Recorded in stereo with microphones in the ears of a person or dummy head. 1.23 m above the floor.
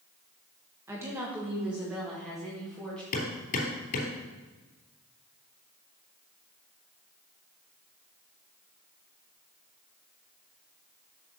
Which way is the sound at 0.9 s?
20° right (ahead or behind).